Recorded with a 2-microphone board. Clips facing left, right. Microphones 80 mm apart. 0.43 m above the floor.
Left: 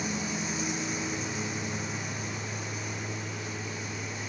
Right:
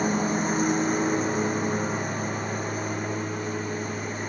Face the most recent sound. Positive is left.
turn(degrees=-45)  # may be behind; listen again after turning